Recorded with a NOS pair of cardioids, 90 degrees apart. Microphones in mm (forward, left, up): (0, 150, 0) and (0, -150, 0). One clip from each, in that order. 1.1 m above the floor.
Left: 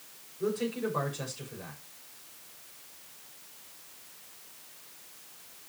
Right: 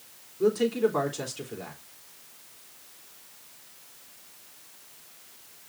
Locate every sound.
0.4 s a man speaking: 65° right, 3.5 m